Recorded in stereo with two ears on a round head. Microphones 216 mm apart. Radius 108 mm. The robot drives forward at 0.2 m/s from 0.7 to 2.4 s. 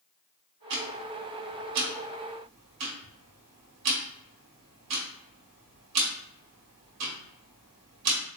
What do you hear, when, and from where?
0.7 s ticking: 85° right, 1.0 m; by 8.2 s 75° right (ahead or behind), 1.0 m